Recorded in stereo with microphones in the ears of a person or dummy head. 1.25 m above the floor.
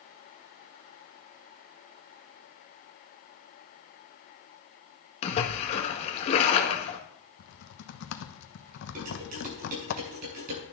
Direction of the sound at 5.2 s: 35° left (ahead or behind).